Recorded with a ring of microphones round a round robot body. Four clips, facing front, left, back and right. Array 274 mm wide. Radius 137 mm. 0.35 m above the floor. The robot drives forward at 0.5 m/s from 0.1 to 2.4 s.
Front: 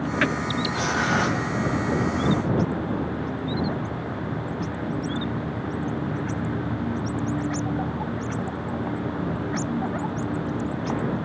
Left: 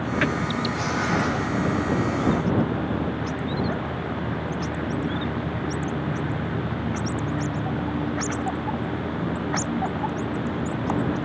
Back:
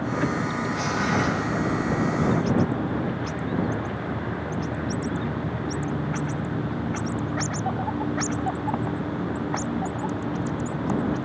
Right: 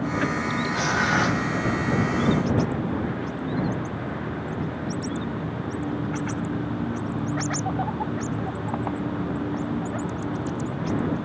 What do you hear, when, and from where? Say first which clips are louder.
0.7 s tearing paper: right 4 dB, front 1 dB; 50° right, 4.5 m; by 1.4 s 55° right, 4.5 m